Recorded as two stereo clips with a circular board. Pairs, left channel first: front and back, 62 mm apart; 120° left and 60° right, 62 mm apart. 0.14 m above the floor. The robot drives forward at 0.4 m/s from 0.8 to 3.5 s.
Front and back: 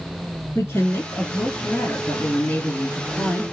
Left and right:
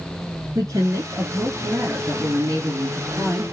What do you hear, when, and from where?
0.6 s a woman speaking: 40° right, 3 m; by 3.4 s 60° right, 2.5 m